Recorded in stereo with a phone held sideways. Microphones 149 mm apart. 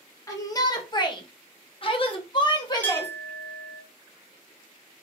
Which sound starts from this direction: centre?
A clink, at 2.8 s.